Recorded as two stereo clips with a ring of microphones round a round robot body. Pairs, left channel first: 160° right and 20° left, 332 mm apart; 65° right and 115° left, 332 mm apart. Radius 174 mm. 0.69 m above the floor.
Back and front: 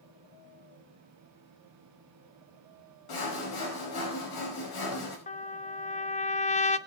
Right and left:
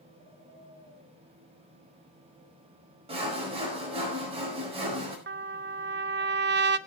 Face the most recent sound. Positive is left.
turn(degrees=145)